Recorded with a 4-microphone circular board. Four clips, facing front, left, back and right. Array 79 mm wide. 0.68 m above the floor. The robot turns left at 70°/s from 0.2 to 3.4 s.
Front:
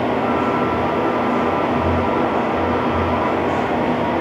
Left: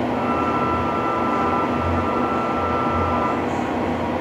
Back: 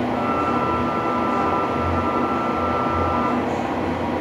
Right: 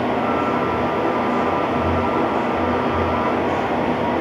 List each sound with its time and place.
Only background noise.